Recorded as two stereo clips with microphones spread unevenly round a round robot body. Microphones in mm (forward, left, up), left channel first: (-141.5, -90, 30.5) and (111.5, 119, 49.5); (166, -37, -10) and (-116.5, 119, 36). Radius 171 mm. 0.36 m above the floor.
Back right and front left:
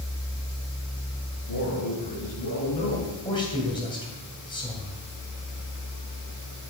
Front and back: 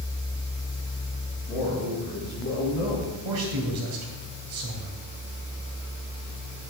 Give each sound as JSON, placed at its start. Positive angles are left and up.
{"t": 1.5, "sound": "a man speaking", "azimuth_deg": -120, "distance_m": 5.0}
{"t": 3.2, "sound": "a man speaking", "azimuth_deg": 145, "distance_m": 2.5}